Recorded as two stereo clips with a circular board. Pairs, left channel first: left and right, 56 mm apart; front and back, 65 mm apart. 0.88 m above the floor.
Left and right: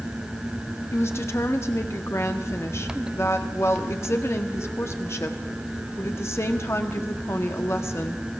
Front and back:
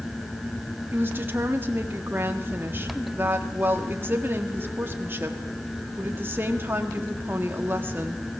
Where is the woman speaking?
125° left, 1.7 m.